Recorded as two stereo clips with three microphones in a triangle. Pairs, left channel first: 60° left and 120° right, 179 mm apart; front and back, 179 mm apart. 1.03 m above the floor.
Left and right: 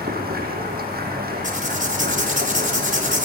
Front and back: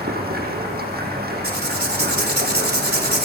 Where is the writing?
160° right, 4.5 m.